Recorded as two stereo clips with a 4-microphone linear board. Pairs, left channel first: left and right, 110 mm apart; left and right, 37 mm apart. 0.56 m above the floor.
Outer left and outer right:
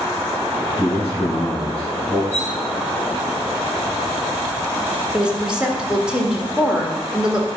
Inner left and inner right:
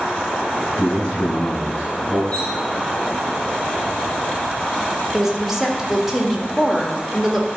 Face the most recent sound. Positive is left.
turn(degrees=-10)  # may be behind; listen again after turning